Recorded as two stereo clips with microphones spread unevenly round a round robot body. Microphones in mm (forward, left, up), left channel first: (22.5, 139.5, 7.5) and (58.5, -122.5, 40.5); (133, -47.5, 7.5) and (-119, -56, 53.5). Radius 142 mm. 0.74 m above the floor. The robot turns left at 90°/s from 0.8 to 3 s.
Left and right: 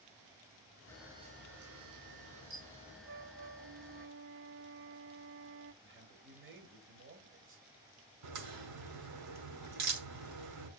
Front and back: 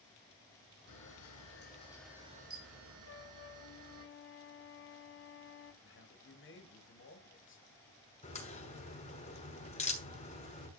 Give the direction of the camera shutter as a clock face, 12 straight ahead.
11 o'clock.